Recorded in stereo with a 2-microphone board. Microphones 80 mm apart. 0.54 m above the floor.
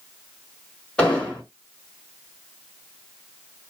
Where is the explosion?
10° left (ahead or behind), 1.6 m.